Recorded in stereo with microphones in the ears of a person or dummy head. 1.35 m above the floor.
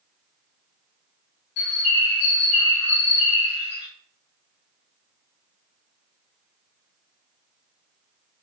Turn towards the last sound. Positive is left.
turn(degrees=55)  # may be behind; listen again after turning